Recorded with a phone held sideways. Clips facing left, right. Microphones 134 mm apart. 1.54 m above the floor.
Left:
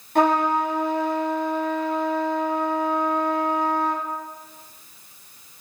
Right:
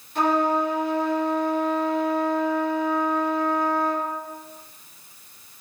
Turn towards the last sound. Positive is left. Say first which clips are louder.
# left 2 dB
turn(degrees=55)  # may be behind; listen again after turning